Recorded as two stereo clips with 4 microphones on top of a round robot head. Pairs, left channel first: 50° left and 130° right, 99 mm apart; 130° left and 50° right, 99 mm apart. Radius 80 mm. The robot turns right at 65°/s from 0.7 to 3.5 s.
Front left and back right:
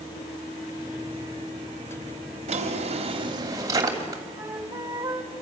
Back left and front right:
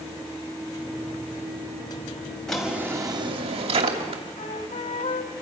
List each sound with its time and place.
2.5 s a drawer: 145° right, 2.5 m; by 4.2 s 75° right, 2.5 m
4.3 s a flute: 160° left, 1.7 m